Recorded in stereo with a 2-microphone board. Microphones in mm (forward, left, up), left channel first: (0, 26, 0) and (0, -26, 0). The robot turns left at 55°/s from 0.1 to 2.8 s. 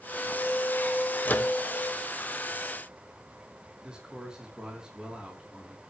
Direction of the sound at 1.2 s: 35° left (ahead or behind).